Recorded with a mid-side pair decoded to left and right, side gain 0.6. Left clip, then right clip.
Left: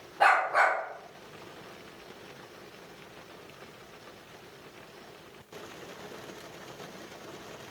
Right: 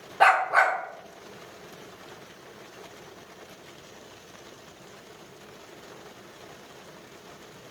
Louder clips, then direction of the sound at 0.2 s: Right 3 dB; 40° right.